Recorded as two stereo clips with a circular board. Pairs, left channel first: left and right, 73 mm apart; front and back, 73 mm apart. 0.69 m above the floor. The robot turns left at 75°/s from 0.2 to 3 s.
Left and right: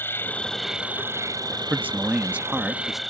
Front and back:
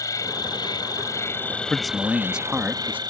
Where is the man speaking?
80° right; by 3.0 s 175° right.